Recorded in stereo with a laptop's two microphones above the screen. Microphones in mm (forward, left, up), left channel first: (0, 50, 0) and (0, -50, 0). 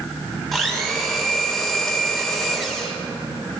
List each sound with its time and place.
0.5 s a blender: centre (ahead or behind), 2.0 m